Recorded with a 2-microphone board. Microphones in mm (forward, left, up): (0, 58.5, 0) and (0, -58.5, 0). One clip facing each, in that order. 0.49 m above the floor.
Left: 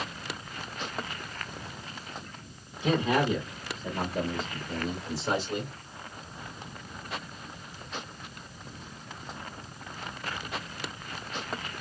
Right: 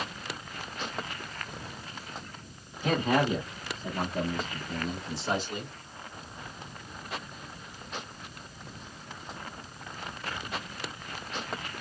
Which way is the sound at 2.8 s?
45° right (ahead or behind).